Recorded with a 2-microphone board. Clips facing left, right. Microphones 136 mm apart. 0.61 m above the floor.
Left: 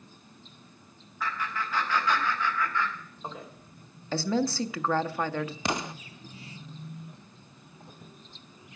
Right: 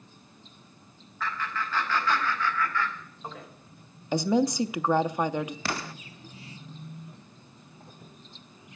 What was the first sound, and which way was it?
Laughter, 15° left (ahead or behind).